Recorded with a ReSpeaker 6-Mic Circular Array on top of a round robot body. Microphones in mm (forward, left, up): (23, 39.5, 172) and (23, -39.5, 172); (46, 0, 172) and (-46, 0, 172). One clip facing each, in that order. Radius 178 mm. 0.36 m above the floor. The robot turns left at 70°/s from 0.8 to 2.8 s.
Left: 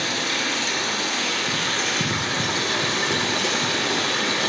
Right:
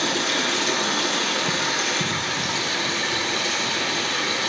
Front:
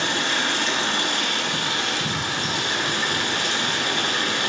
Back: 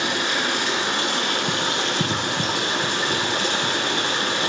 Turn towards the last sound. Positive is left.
turn(degrees=120)